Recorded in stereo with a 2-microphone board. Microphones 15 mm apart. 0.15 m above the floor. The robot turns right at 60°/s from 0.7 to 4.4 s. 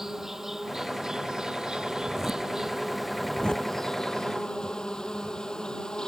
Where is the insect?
140° right; by 6.1 s 80° left.